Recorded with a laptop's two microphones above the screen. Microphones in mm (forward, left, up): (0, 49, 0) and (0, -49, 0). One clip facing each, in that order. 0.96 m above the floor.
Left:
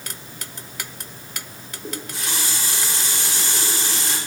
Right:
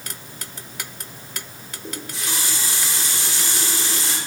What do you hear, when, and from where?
1.8 s a running tap: 55° left (ahead or behind), 4 m